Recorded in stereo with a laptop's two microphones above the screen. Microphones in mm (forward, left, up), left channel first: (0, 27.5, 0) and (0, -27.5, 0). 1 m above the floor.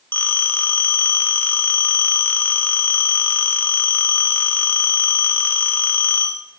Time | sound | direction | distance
0.1 | a phone ringing | 35° left (ahead or behind) | 1.8 m